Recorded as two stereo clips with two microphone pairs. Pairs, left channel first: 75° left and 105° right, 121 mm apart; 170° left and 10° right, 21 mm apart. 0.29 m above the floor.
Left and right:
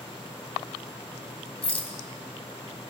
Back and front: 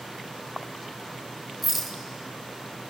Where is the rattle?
75° left, 2.5 m.